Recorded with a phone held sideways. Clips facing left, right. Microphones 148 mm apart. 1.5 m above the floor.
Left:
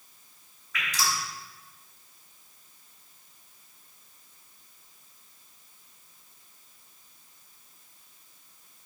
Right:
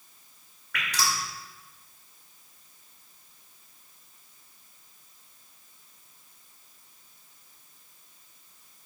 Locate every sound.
0.7 s dripping: 65° right (ahead or behind), 2 m